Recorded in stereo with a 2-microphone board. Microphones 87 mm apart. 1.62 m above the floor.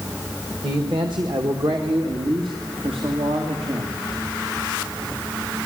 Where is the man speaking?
60° right (ahead or behind), 2 m; by 4.0 s 85° right, 3.5 m.